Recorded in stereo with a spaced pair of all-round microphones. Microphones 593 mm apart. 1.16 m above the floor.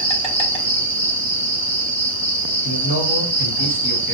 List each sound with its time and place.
0.0 s an insect: 10° left (ahead or behind), 0.8 m
2.6 s a man speaking: 35° left (ahead or behind), 1.6 m